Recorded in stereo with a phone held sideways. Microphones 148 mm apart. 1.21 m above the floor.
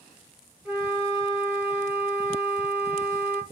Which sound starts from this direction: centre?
A flute, at 0.7 s.